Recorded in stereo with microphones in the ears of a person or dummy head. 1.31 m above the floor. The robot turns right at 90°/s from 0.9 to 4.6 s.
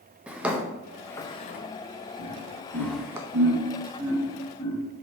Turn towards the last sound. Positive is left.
turn(degrees=25)  # may be behind; listen again after turning